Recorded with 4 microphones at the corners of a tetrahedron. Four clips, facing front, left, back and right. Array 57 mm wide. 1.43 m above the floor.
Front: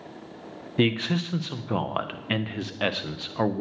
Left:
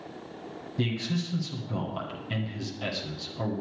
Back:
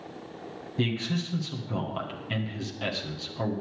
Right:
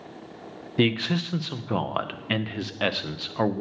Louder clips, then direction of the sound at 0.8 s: Right 7 dB, front 6 dB; 55° right.